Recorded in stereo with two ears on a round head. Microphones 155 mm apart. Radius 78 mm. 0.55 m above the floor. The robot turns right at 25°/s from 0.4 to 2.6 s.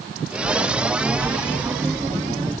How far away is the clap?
I don't hear a clap.